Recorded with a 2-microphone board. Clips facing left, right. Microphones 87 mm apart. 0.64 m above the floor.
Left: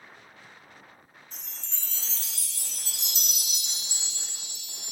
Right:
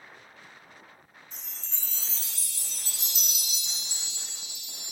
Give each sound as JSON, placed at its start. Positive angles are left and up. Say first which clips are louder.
{"t": 1.3, "sound": "a chime", "louder": "left 1 dB", "side_deg": 60, "distance_m": 0.7}